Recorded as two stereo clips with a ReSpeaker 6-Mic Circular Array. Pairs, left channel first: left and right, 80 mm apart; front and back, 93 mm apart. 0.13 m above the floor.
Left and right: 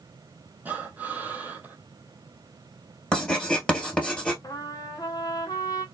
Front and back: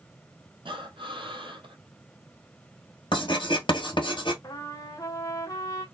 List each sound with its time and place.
0.7 s breathing: 160° right, 0.8 m
3.1 s writing: 10° left, 1.8 m
4.4 s a trumpet: 50° left, 0.7 m